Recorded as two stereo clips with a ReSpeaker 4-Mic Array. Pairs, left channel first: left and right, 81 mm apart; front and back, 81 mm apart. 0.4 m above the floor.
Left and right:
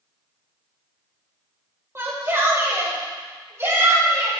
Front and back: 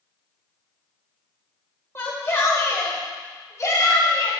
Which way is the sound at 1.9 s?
45° right.